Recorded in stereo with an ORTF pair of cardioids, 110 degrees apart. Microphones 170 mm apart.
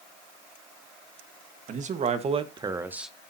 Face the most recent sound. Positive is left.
turn(degrees=0)